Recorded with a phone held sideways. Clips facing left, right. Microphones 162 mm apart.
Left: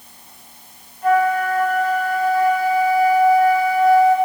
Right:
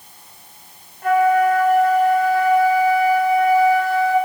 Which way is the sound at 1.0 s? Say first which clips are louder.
Right 2 dB; 55° right (ahead or behind).